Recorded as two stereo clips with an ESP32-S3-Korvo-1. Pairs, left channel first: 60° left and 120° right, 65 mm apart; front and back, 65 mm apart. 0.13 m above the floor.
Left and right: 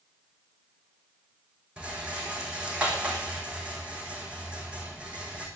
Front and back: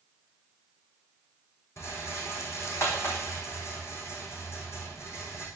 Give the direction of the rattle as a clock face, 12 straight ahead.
2 o'clock.